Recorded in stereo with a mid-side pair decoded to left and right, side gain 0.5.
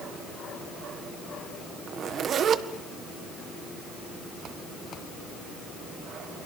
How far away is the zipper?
About 1.7 m.